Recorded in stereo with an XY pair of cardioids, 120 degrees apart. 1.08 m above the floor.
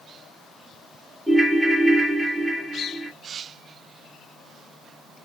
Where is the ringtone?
5° right, 0.7 m.